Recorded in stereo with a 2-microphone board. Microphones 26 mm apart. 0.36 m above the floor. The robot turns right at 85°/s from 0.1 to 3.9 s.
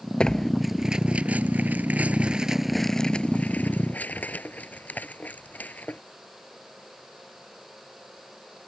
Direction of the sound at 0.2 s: 40° left (ahead or behind).